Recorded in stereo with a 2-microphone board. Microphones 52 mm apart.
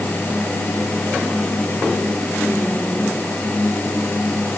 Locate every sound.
Only background noise.